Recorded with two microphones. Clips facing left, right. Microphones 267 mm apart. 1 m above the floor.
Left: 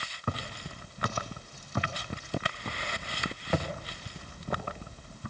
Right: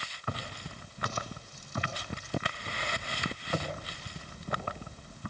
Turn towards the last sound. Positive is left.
turn(degrees=55)  # may be behind; listen again after turning